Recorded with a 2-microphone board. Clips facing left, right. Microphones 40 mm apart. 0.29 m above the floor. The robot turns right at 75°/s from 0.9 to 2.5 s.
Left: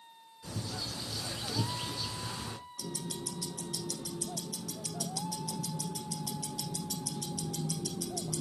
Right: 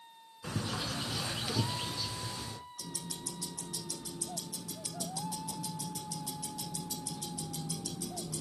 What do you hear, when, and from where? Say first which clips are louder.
0.4 s a bird: right 3 dB; 70° right, 2 m; by 2.6 s 50° left, 2 m
2.8 s ticking: left 7 dB; 75° left (ahead or behind), 4 m